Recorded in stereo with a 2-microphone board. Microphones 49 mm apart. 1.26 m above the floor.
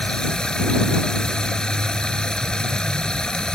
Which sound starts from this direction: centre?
Running water, at 0.0 s.